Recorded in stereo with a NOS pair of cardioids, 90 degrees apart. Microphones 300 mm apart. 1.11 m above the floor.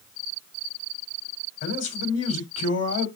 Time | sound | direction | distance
1.6 | a man speaking | 50° left | 4 m